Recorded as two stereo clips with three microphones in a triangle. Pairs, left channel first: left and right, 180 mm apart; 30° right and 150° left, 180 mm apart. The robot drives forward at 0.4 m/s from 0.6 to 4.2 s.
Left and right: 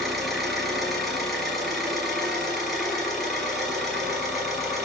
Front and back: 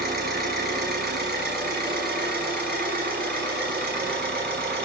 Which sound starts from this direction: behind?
An engine running, at 0.0 s.